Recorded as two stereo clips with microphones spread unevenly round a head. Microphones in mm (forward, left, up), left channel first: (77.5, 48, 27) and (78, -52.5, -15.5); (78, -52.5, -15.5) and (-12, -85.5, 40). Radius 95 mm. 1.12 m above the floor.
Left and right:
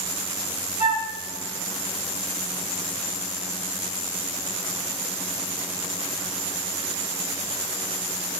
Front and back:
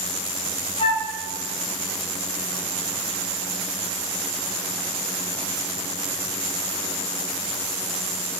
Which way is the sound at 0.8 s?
75° left.